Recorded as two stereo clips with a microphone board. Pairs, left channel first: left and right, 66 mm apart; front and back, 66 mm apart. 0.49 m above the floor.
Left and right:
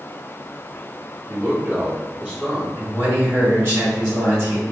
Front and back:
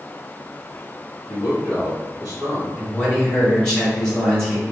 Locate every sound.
1.3 s a man speaking: 80° right, 1.4 m; by 2.7 s 160° right, 1.3 m
2.8 s a man speaking: 75° right, 1.7 m